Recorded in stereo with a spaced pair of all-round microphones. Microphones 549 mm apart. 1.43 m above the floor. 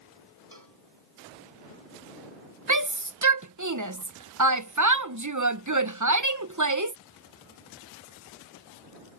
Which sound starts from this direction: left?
A cowbell, at 0.5 s.